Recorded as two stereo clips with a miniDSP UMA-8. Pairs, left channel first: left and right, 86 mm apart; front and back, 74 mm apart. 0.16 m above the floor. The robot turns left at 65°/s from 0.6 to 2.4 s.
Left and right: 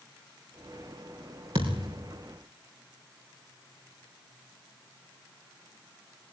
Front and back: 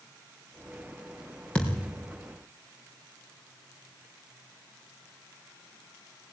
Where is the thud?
75° right, 5 m; by 2.1 s 115° right, 5 m.